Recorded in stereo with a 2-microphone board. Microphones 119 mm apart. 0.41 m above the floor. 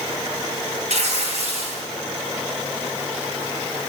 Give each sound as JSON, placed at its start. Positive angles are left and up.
{"t": 0.9, "sound": "tearing paper", "side_deg": -70, "distance_m": 3.5}